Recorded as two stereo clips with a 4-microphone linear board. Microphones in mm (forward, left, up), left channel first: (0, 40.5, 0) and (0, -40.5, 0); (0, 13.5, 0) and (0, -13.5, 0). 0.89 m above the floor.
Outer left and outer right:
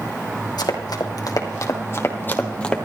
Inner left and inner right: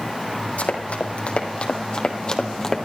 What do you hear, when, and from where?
0.6 s running footsteps: 60° left (ahead or behind), 2.5 m; by 2.9 s 5° left (ahead or behind), 1.7 m